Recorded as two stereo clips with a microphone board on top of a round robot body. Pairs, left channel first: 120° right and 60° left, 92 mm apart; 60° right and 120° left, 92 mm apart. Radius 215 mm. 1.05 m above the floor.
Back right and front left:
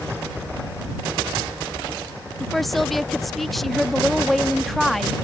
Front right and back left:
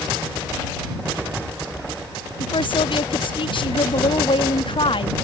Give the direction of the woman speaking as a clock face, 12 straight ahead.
1 o'clock.